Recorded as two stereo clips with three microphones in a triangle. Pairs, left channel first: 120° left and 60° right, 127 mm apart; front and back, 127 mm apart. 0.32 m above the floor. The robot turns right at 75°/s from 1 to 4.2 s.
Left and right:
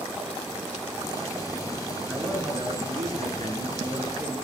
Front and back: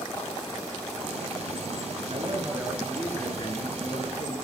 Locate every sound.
2.1 s a man speaking: 155° right, 4 m; by 4.3 s 5° left, 4 m